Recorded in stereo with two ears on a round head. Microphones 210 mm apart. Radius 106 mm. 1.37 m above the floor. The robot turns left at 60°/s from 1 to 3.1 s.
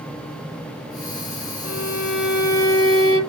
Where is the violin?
80° left, 1.2 m; by 3.2 s 10° right, 1.2 m.